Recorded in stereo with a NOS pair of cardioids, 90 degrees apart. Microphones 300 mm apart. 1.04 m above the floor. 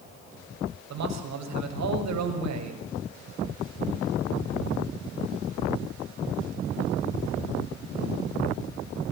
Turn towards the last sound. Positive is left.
turn(degrees=-65)